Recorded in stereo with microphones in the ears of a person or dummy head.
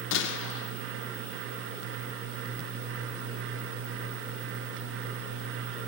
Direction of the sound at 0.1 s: 65° left (ahead or behind).